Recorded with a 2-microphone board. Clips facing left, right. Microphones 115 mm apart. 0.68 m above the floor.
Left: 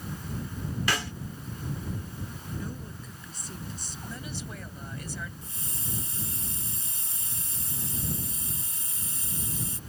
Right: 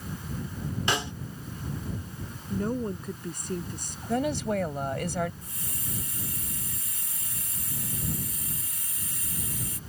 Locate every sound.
0.9 s a snare drum: 25° right (ahead or behind)
2.5 s a woman speaking: 60° right (ahead or behind)
4.1 s a woman speaking: 75° right (ahead or behind)
5.4 s a hiss: 30° left (ahead or behind)